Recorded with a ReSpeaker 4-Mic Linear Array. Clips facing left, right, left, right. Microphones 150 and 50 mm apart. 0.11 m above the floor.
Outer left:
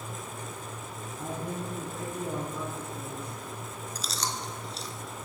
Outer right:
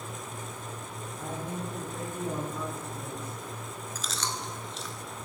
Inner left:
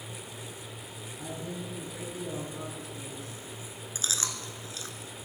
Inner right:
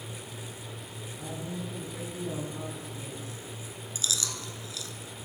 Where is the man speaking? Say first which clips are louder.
Outer left 1 dB, inner right 1 dB; 20° left (ahead or behind), 2 m; by 3.4 s 15° right (ahead or behind), 2 m.